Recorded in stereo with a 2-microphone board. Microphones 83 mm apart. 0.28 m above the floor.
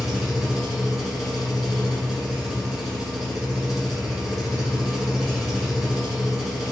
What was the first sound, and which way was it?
An engine running, centre (ahead or behind).